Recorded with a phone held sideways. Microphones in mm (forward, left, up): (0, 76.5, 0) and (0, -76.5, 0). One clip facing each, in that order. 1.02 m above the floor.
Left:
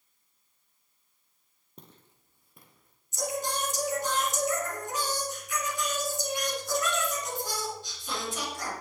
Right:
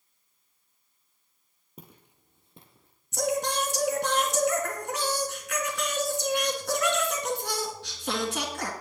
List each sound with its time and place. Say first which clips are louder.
1.8 s footsteps: right 3 dB; 5° right (ahead or behind), 1.3 m; by 3.0 s 30° right (ahead or behind), 2 m
3.1 s singing: right 5 dB; 70° right (ahead or behind), 2.5 m